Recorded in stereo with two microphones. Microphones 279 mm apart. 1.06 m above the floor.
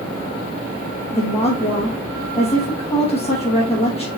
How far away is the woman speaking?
About 1.1 m.